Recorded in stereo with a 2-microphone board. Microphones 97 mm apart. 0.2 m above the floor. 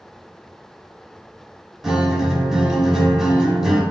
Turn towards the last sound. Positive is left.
turn(degrees=-5)  # may be behind; listen again after turning